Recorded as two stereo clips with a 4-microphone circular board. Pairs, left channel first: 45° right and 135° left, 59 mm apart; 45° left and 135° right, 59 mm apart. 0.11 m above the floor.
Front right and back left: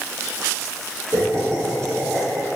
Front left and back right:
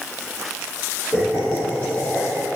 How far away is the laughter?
About 3 m.